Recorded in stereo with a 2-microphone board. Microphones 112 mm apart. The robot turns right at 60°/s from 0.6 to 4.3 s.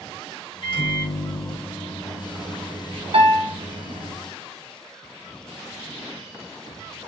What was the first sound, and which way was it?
A microwave, 70° left.